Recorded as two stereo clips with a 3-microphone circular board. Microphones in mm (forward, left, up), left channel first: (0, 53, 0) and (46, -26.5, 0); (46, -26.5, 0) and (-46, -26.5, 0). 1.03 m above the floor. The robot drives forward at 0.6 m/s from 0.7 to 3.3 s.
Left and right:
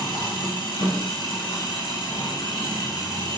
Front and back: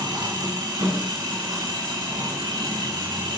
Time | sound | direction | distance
0.0 | an engine running | 145° left | 5 m